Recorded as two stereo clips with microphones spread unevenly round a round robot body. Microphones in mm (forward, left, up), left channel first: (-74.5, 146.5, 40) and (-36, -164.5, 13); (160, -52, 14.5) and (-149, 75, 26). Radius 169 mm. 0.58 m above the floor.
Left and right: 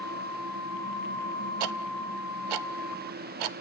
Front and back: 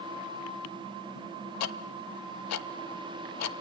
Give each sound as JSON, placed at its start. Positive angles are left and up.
{"t": 1.6, "sound": "ticking", "azimuth_deg": -70, "distance_m": 0.7}